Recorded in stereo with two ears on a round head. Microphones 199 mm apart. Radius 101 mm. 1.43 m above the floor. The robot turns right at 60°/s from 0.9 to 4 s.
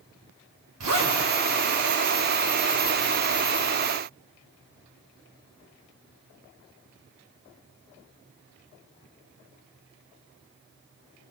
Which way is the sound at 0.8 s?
90° right.